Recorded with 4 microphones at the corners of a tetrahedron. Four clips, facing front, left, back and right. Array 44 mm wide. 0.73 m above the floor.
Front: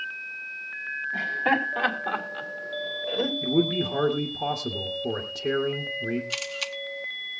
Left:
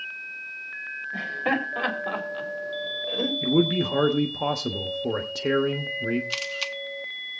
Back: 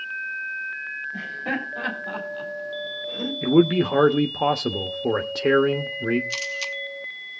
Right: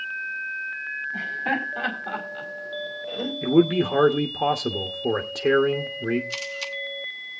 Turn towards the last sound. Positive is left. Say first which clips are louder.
# left 1 dB, back 3 dB
turn(degrees=65)